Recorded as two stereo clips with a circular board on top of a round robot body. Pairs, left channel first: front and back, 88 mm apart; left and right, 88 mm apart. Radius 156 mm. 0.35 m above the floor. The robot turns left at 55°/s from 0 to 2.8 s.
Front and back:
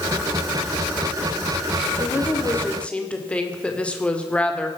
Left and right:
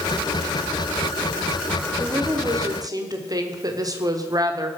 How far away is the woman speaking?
About 2.0 m.